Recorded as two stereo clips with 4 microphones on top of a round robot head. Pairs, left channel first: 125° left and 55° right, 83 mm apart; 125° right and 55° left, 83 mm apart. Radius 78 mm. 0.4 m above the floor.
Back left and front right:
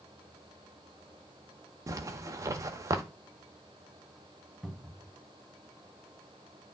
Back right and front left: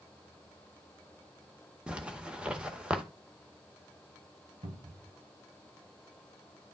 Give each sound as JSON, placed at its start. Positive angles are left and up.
{"t": 1.9, "sound": "a zipper", "azimuth_deg": -20, "distance_m": 1.4}
{"t": 4.6, "sound": "a cupboard door", "azimuth_deg": 35, "distance_m": 1.2}